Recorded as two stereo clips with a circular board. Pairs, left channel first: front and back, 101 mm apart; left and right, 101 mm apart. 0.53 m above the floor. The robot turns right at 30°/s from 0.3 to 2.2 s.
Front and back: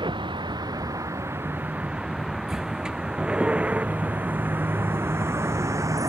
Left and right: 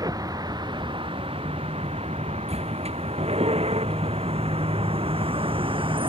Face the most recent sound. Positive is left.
turn(degrees=-125)